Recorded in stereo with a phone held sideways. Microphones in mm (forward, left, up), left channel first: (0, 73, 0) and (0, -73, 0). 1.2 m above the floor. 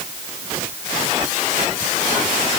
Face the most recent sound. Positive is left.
No sound to turn to.